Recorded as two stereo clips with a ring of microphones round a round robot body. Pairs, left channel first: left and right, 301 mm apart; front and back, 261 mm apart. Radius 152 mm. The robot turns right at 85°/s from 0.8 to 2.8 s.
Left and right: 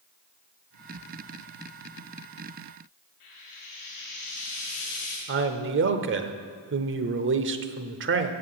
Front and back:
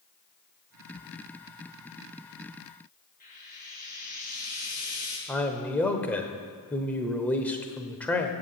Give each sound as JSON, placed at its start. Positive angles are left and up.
{"t": 3.2, "sound": "frying", "azimuth_deg": 55, "distance_m": 6.0}
{"t": 5.3, "sound": "a man speaking", "azimuth_deg": -80, "distance_m": 1.0}